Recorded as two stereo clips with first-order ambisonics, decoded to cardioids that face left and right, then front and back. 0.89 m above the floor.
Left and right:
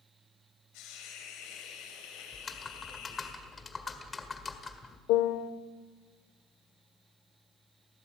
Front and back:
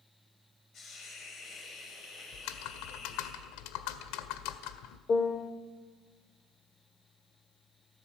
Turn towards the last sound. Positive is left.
turn(degrees=70)